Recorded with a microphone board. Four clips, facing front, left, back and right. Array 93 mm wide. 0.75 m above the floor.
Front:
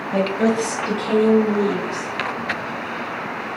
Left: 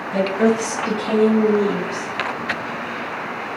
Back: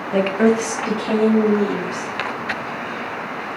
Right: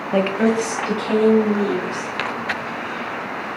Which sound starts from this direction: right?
A woman speaking, at 0.1 s.